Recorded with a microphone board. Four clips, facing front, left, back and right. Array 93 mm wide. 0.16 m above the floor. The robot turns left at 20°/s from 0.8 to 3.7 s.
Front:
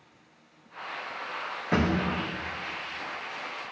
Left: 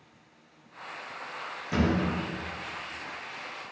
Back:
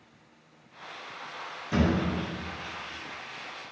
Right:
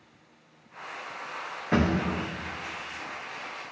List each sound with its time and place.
1.7 s a thud: 40° right, 2.5 m; by 2.0 s 45° right, 2.5 m